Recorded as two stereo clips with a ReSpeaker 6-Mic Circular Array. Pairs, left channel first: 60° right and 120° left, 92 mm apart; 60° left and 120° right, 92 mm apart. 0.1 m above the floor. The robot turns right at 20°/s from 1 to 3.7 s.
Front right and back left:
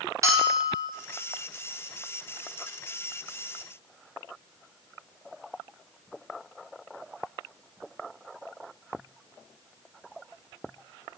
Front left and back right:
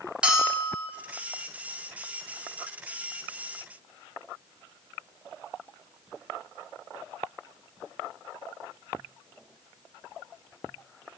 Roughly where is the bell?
Behind.